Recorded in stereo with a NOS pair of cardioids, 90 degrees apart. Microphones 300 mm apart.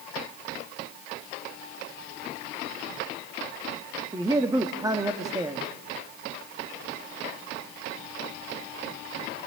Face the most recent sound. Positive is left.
turn(degrees=-10)